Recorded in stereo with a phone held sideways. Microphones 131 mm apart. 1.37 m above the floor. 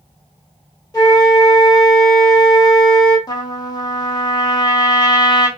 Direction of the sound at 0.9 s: 30° left (ahead or behind).